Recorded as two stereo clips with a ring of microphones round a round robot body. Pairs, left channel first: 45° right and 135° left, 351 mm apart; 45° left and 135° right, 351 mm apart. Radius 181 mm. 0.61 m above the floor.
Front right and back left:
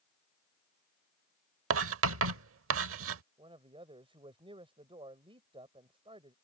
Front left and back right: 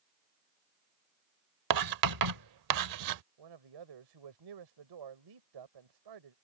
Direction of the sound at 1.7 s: 170° right.